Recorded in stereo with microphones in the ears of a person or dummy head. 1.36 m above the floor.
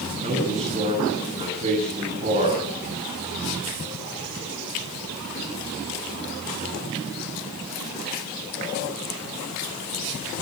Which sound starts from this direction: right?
A man speaking, at 0.2 s.